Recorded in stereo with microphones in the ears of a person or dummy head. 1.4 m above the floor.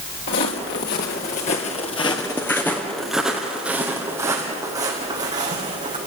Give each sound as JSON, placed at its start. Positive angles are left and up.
{"t": 0.3, "sound": "footsteps", "side_deg": 55, "distance_m": 2.5}